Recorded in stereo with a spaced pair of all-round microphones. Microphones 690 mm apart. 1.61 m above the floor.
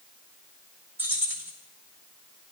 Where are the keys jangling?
5° right (ahead or behind), 2.5 m.